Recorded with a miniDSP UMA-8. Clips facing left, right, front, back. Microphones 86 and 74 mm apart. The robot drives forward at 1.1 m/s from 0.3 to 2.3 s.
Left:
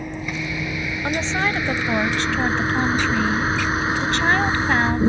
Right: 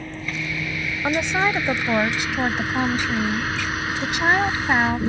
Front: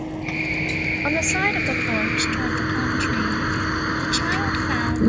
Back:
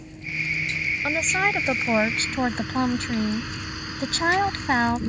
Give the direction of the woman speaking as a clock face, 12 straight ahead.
1 o'clock.